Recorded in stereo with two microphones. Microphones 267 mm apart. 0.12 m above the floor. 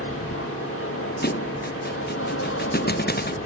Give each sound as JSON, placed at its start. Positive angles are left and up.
{"t": 0.0, "sound": "an aircraft", "side_deg": 55}
{"t": 1.2, "sound": "a thud", "side_deg": 40}